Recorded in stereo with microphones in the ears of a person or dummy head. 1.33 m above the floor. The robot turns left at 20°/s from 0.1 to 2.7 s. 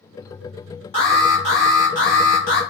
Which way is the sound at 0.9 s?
145° left.